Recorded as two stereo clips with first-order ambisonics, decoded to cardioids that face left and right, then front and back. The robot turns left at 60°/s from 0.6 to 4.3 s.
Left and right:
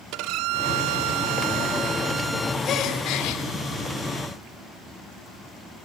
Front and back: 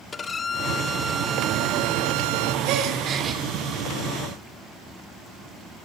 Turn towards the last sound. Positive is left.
turn(degrees=50)